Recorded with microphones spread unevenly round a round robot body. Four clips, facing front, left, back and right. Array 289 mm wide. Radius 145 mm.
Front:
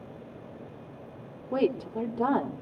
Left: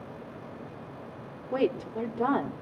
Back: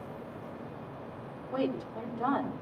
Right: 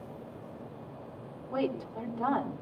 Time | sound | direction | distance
1.5 | a woman speaking | 25° left | 1.9 m